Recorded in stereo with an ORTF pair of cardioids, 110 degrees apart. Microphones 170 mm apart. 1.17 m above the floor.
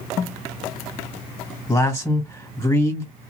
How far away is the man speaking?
About 1.7 m.